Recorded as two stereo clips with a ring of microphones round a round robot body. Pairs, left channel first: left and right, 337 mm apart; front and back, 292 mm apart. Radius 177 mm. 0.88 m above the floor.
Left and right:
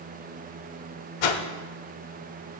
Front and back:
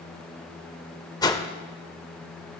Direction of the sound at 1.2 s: 80° left.